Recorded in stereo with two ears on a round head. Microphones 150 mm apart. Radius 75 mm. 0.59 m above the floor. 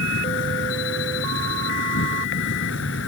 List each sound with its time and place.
0.0 s an insect: 80° left